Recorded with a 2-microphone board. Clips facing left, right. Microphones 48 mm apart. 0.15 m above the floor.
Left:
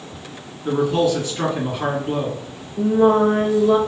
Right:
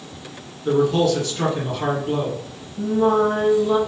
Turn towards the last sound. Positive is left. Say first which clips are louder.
# left 3 dB
turn(degrees=60)  # may be behind; listen again after turning